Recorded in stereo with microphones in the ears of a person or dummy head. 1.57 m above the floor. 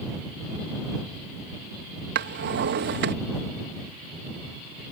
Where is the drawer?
60° right (ahead or behind).